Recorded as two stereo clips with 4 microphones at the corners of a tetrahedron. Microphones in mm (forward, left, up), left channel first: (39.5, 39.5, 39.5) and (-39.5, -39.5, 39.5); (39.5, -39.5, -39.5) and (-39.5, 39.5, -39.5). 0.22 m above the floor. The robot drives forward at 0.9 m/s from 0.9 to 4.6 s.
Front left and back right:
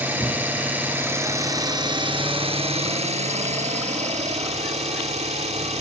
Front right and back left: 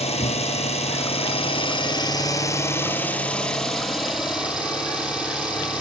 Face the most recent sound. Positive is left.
turn(degrees=-145)